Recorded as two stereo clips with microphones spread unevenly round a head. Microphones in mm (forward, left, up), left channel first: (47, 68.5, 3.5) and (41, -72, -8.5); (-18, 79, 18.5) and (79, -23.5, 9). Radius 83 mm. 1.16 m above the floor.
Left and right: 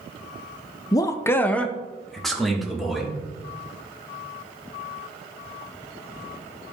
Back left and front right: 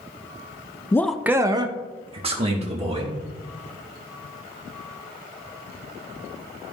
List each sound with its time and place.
0.9 s a man speaking: 100° left, 0.5 m; by 3.1 s 5° right, 2 m